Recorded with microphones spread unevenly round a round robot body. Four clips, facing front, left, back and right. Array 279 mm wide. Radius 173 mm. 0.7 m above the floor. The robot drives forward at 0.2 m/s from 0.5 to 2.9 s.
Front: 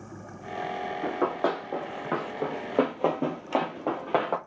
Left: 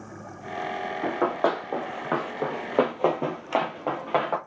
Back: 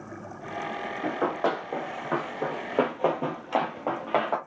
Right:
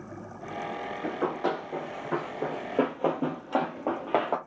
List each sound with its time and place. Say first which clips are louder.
1.0 s running footsteps: left 5 dB, back 1 dB; 110° left, 1.5 m; by 4.4 s 60° right, 0.7 m